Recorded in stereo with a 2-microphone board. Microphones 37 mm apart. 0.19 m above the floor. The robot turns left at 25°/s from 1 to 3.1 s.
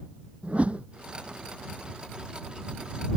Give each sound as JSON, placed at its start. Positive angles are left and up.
{"t": 0.4, "sound": "a whoosh", "side_deg": -35}